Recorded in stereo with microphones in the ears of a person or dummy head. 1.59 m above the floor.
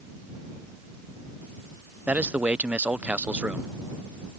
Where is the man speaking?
15° right (ahead or behind).